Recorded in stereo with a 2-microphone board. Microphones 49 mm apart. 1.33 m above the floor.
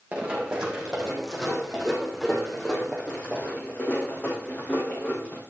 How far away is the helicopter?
No helicopter in this recording.